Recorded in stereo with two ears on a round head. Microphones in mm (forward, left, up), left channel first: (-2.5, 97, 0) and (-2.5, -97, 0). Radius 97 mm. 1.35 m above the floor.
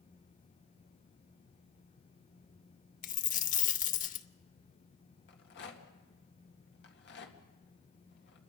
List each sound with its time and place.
3.0 s a dropped coin: 40° left (ahead or behind), 0.8 m
5.3 s a rattle: 55° left (ahead or behind), 2.0 m